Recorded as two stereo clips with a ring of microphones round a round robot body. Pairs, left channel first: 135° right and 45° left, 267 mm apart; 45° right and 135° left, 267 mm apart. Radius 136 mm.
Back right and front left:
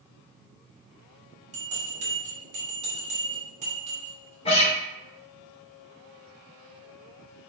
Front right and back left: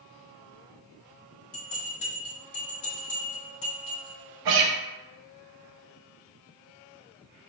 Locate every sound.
1.5 s a bell: 15° right, 1.4 m
4.5 s a guitar: 155° left, 0.7 m